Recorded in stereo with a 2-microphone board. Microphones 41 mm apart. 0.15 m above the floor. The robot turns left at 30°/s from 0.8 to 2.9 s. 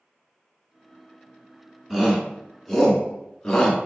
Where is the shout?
10° right (ahead or behind), 1.3 m; by 3.8 s 10° left (ahead or behind), 1.3 m.